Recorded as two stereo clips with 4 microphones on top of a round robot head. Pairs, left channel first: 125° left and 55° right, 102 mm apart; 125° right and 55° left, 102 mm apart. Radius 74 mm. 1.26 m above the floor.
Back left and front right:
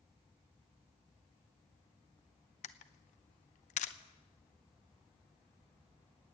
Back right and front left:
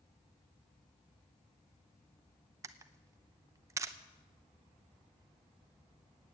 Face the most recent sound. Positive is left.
turn(degrees=120)